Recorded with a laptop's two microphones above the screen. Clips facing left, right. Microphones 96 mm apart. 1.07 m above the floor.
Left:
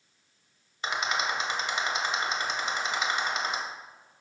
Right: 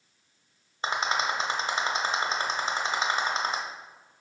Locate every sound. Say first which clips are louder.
0.8 s a rattle: right 2 dB; 35° right (ahead or behind), 1.0 m